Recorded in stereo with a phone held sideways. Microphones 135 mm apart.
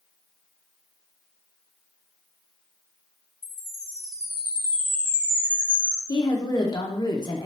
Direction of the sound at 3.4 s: 35° right (ahead or behind).